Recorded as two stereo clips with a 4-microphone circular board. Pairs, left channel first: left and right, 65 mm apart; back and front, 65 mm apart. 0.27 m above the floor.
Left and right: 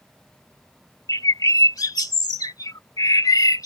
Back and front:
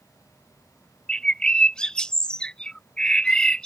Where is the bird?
105° left.